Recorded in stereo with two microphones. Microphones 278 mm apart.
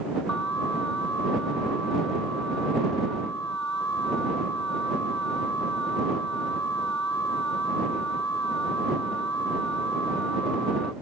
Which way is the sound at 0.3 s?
80° right.